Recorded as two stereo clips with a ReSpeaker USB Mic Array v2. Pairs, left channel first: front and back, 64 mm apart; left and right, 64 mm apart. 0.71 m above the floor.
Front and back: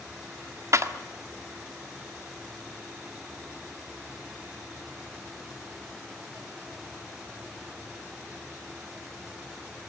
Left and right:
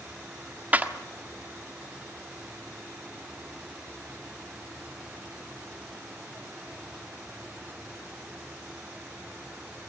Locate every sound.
0.7 s a clap: 155° right, 1.4 m